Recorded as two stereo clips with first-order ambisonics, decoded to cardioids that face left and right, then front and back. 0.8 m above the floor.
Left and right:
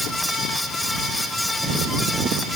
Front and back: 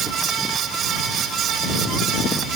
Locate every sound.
Only background noise.